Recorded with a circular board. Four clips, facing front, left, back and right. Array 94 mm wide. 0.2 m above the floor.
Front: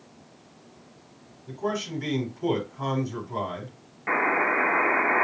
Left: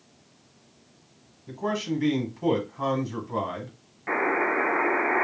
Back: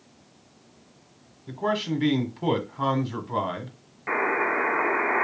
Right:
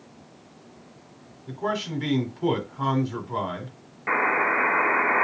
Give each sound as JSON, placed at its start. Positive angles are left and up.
{"t": 1.5, "sound": "a man speaking", "azimuth_deg": -165, "distance_m": 1.3}
{"t": 4.1, "sound": "a buzzer", "azimuth_deg": -70, "distance_m": 1.1}